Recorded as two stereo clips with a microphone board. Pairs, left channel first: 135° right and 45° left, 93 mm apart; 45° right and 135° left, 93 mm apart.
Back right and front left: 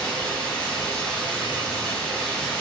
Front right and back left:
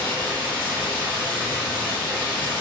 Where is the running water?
70° right, 1.4 m.